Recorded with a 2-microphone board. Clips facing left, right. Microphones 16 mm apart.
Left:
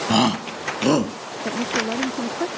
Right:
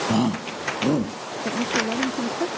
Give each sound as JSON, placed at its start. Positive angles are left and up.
{"t": 0.1, "sound": "a shout", "side_deg": 45}
{"t": 1.4, "sound": "a woman speaking", "side_deg": 15}